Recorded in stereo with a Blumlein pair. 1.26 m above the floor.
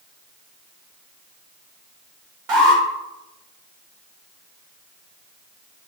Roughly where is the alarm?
Ahead right.